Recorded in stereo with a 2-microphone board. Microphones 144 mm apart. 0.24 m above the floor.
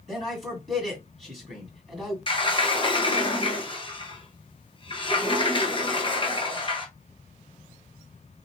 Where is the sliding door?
40° left (ahead or behind), 0.9 m.